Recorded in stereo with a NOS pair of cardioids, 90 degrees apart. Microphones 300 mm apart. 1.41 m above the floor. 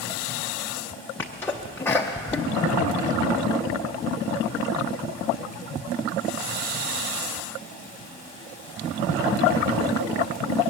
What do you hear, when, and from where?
1.2 s a sneeze: 5° left, 0.7 m